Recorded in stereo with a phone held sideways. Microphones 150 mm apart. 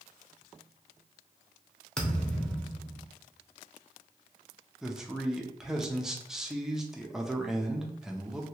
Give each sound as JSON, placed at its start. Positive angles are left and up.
{"t": 2.0, "sound": "a thud", "side_deg": 5, "distance_m": 0.7}
{"t": 4.8, "sound": "a man speaking", "side_deg": -5, "distance_m": 0.5}